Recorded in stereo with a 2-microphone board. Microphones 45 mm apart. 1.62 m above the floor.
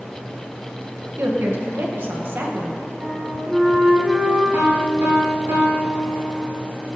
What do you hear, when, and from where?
1.2 s a woman speaking: 60° right (ahead or behind), 1.9 m
3.0 s a flute: 25° right (ahead or behind), 2 m
4.5 s a piano: 75° right (ahead or behind), 3 m